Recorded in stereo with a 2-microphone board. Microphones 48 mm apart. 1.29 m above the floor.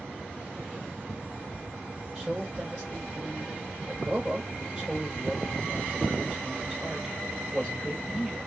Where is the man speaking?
15° right (ahead or behind), 3.5 m.